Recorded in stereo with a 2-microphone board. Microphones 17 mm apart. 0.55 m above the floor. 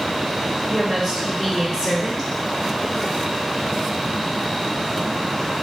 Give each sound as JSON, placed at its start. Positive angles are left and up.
{"t": 0.7, "sound": "a woman speaking", "side_deg": 0, "distance_m": 1.8}